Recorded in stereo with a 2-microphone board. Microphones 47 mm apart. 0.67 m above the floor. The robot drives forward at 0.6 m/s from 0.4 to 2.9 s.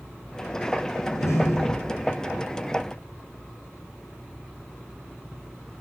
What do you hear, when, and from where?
1.0 s a door slam: 80° left, 5 m; by 2.0 s 75° left (ahead or behind), 5 m